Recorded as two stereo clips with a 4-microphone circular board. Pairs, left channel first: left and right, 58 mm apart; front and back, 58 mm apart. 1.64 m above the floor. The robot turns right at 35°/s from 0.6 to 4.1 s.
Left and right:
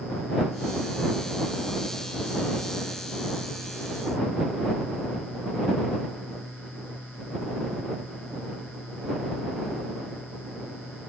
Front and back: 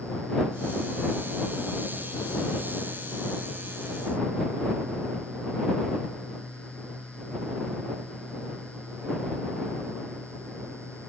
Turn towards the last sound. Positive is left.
No sound to turn to.